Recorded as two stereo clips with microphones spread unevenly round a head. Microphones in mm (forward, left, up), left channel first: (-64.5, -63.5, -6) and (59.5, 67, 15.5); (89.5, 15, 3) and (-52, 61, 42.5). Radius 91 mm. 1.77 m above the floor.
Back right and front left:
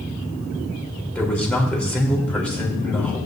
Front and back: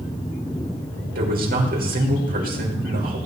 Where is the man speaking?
140° left, 3.5 m.